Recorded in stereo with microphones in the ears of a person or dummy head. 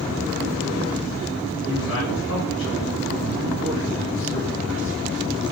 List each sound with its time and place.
1.6 s a man speaking: 80° left, 5.5 m; by 5.0 s 75° left (ahead or behind), 7 m